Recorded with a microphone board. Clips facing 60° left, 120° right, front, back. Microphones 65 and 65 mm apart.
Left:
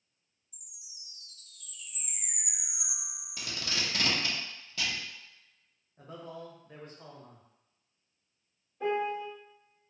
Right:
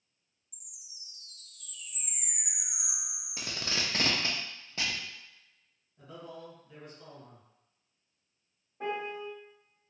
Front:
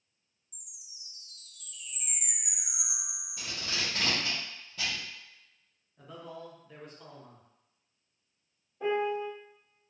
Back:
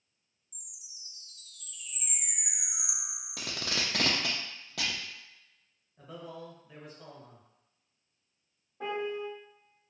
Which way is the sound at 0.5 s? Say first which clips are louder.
Even, even; 135° right.